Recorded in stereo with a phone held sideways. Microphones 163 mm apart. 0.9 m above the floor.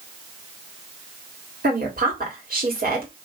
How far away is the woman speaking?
About 1.9 m.